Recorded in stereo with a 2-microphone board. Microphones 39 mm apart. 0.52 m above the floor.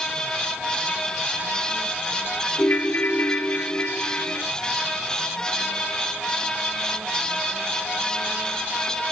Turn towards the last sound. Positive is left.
turn(degrees=45)  # may be behind; listen again after turning